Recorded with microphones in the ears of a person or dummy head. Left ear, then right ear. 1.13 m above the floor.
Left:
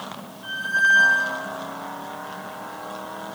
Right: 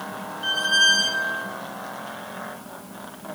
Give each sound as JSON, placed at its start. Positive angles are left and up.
{"t": 0.4, "sound": "a squeak", "side_deg": -45, "distance_m": 0.5}